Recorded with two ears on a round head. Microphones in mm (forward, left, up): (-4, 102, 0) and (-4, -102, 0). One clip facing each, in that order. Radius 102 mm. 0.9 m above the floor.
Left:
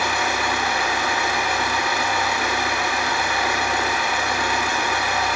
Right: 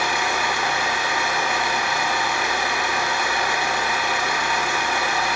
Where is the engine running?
30° left (ahead or behind), 1.3 m.